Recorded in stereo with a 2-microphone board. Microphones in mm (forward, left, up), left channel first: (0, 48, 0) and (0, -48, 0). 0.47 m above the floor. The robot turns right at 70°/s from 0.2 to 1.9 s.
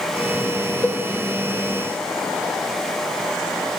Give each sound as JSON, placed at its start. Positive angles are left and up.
{"t": 0.8, "sound": "a cowbell", "side_deg": 15, "distance_m": 2.0}